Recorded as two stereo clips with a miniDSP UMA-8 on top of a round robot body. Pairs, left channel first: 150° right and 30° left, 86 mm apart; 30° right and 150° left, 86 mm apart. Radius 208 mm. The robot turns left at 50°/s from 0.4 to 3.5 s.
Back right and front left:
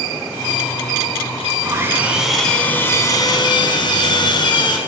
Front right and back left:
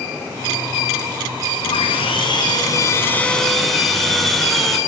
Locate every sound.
1.6 s sawing: 25° right, 6 m; by 4.8 s 120° right, 6 m